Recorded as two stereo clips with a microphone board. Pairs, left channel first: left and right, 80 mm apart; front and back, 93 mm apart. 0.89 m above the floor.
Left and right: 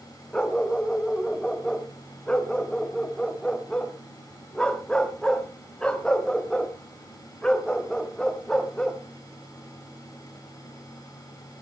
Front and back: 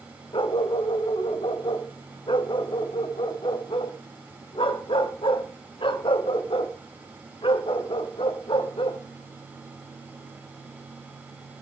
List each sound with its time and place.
0.3 s a dog barking: 10° left, 1.5 m